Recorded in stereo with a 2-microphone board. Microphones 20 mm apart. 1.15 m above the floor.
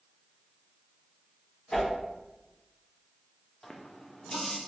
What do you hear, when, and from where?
1.7 s a whoosh: 45° left (ahead or behind), 1.9 m
3.6 s a running tap: 25° left (ahead or behind), 0.5 m